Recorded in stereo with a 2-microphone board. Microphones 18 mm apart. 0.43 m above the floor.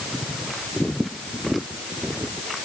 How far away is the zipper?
I don't hear a zipper.